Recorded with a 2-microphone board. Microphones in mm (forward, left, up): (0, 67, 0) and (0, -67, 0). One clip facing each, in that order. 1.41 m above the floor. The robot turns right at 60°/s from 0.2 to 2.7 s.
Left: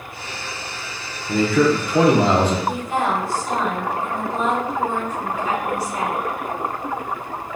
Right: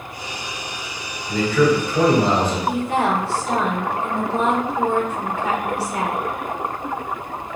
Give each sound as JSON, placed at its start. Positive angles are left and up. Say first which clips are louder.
{"t": 1.3, "sound": "a man speaking", "louder": "even", "azimuth_deg": 35, "distance_m": 0.9}
{"t": 2.7, "sound": "a woman speaking", "louder": "right 2 dB", "side_deg": -70, "distance_m": 1.2}